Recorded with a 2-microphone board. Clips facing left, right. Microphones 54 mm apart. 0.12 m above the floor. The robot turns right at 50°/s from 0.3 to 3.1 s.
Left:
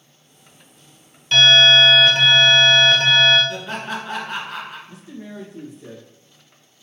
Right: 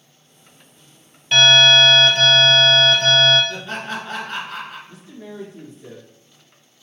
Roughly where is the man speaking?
Centre.